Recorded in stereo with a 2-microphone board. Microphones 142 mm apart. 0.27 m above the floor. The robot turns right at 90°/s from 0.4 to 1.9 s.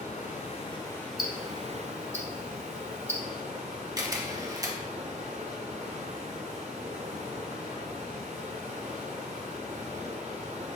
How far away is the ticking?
About 1.2 m.